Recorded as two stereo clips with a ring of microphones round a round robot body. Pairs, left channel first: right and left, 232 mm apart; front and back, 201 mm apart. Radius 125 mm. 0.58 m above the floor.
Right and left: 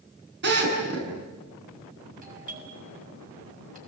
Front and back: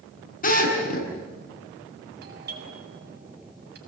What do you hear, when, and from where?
0.4 s a drill: 45° left, 8 m
2.2 s a doorbell: 145° left, 7 m